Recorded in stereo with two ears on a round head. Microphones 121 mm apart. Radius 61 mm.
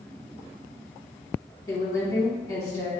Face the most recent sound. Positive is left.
turn(degrees=25)  # may be behind; listen again after turning